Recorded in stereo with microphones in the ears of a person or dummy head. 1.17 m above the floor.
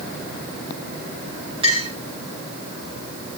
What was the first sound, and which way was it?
A clink, 25° right (ahead or behind).